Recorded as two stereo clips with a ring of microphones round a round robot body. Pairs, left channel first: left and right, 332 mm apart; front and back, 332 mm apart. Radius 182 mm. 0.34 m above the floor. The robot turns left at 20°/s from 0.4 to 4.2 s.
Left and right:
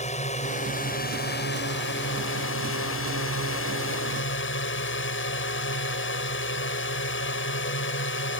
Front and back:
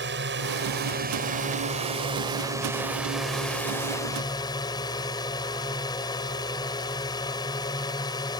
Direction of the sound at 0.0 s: 150° left.